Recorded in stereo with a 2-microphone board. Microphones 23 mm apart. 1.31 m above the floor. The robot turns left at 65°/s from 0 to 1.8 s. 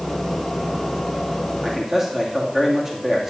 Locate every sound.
1.6 s a man speaking: 25° right (ahead or behind), 2.5 m; by 3.3 s 15° right (ahead or behind), 2.5 m